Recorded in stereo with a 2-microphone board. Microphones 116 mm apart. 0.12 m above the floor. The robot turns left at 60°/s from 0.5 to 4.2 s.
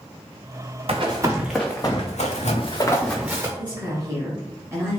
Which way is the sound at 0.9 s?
55° right (ahead or behind).